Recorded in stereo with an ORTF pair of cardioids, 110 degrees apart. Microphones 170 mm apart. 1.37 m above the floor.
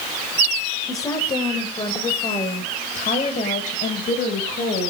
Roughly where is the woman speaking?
Ahead.